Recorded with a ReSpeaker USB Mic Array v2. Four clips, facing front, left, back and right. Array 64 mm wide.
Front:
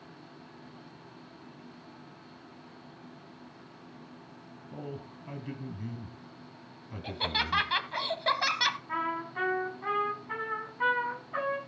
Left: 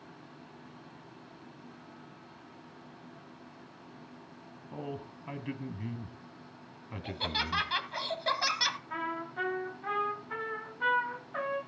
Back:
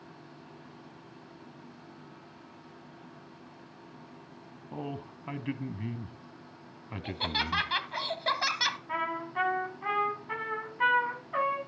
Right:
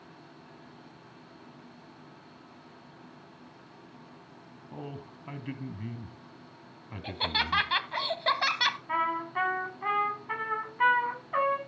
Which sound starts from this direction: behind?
A man speaking, at 4.7 s.